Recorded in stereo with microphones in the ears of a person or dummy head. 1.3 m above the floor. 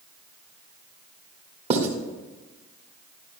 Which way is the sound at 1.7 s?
35° right (ahead or behind).